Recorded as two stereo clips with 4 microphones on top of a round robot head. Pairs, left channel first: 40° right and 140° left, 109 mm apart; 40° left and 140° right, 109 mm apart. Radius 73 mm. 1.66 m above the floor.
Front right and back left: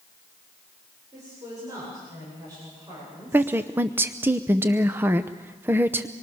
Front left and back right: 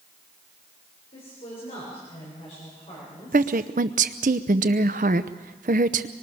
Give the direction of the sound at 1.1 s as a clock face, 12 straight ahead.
9 o'clock.